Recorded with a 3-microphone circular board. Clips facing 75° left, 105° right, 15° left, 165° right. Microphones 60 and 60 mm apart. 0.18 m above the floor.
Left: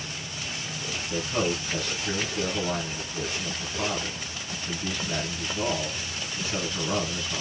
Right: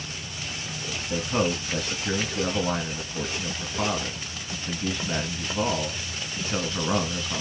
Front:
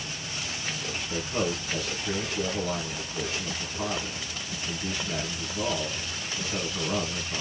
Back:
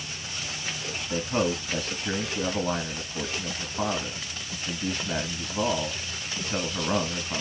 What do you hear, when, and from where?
1.1 s a man speaking: 145° right, 1.9 m